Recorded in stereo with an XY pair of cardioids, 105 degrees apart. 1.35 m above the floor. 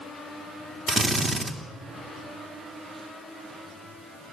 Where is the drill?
30° right, 2.5 m.